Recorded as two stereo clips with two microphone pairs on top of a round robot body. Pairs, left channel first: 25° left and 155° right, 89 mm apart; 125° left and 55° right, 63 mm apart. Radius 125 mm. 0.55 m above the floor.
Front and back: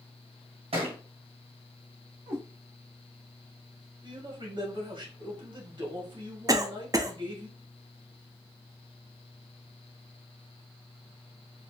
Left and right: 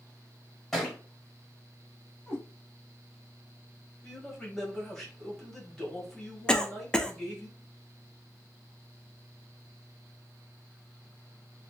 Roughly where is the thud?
Behind right.